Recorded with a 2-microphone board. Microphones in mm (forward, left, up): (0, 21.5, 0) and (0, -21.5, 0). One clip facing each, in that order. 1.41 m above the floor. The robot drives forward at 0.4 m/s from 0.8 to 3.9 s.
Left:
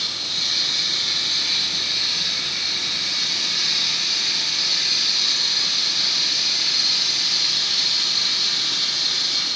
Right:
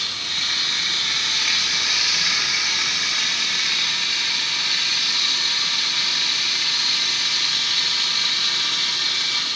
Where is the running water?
45° right (ahead or behind), 0.8 m; by 9.6 s 40° right (ahead or behind), 0.9 m.